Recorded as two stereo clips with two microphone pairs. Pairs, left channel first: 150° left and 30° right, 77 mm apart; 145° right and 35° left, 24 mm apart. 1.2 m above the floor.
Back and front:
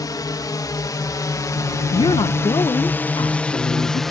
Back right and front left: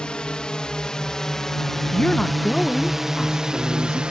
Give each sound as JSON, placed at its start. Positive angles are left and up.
{"t": 0.0, "sound": "a drone", "azimuth_deg": 170}
{"t": 1.9, "sound": "a woman speaking", "azimuth_deg": 155}